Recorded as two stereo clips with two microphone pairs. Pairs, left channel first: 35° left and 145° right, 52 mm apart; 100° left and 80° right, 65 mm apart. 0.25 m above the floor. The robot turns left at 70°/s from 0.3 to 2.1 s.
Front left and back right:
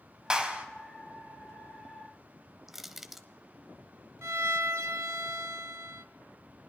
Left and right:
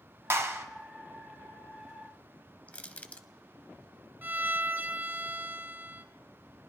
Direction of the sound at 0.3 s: 75° right.